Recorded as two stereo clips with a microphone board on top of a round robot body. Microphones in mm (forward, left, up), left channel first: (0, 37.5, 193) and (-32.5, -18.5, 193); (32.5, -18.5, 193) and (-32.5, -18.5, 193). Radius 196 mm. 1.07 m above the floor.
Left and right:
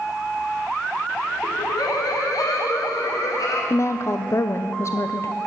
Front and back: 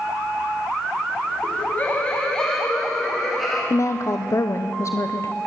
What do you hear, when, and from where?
1.4 s laughter: 50° left, 1.1 m; by 3.6 s 90° left, 3 m
3.7 s a woman speaking: 30° left, 0.7 m